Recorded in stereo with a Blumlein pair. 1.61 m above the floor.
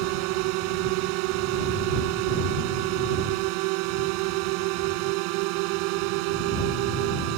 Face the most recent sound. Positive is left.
turn(degrees=-45)